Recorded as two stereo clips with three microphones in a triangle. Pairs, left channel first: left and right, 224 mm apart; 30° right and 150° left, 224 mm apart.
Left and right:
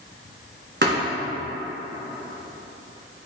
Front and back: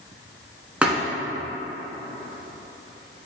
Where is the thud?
125° right, 1.4 m.